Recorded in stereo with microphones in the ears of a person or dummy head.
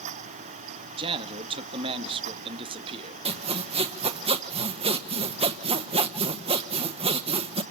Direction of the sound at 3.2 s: 30° right (ahead or behind).